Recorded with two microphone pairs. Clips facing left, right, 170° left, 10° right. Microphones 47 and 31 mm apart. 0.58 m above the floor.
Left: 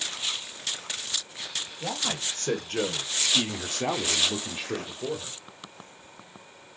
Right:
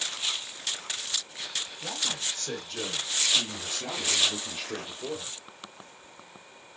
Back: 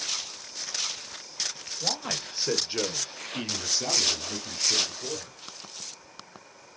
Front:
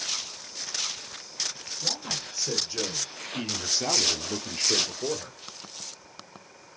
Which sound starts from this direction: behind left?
A man speaking, at 1.8 s.